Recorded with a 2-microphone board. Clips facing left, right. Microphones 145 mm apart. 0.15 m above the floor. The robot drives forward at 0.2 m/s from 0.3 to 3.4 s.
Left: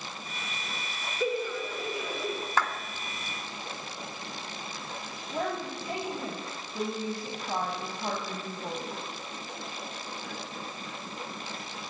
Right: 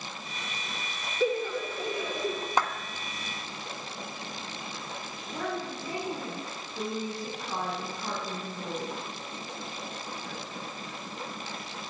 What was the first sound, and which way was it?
Laughter, 5° left (ahead or behind).